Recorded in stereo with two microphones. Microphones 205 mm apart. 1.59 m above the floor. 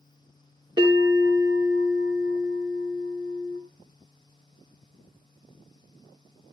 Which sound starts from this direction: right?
A bell, at 0.8 s.